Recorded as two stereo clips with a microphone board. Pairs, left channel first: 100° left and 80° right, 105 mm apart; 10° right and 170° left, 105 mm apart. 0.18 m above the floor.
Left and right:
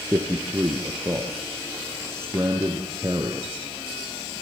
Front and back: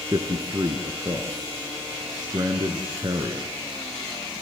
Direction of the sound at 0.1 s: 145° right.